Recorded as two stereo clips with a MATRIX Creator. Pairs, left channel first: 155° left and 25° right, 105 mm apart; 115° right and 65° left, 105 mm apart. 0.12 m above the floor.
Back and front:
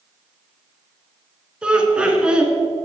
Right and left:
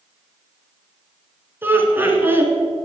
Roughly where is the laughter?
Ahead left.